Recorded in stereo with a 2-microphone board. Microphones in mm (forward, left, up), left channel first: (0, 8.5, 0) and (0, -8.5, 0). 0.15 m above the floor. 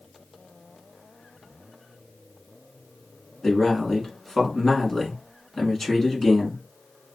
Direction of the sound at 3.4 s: 25° left (ahead or behind).